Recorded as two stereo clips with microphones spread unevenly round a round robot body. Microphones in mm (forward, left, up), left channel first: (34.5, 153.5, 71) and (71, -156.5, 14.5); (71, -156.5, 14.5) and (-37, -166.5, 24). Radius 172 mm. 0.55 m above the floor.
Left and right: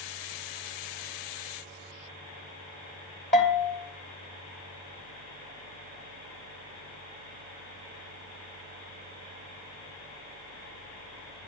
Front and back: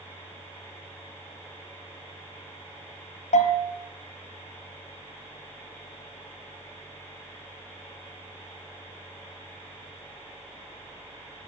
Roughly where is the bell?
Ahead left.